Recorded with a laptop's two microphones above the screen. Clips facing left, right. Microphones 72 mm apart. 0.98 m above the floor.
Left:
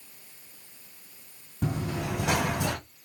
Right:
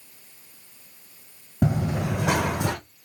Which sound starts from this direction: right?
Running footsteps, at 1.6 s.